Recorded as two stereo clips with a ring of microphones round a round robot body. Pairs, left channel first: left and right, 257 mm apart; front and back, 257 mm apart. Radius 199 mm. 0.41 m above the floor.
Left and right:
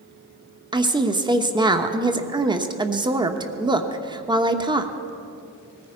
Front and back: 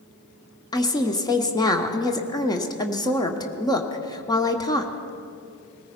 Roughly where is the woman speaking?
Ahead right.